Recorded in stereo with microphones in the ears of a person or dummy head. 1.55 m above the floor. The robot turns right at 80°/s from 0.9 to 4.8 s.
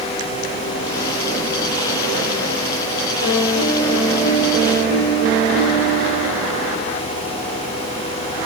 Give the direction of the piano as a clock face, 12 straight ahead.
8 o'clock.